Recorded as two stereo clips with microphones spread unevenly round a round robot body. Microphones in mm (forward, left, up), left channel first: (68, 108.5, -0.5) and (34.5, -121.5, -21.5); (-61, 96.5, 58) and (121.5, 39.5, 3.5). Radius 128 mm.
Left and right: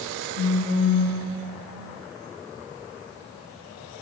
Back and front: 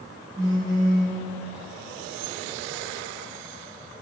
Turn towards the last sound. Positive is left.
turn(degrees=60)